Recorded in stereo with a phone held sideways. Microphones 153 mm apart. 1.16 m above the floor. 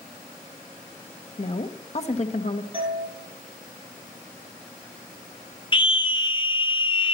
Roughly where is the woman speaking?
Left.